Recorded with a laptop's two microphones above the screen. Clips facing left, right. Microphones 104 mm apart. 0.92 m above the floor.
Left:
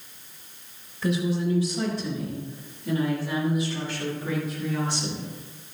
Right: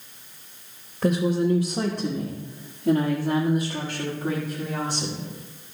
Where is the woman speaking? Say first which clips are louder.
Right 4 dB; 65° right (ahead or behind), 1.1 m; by 5.3 s 40° right (ahead or behind), 2.5 m.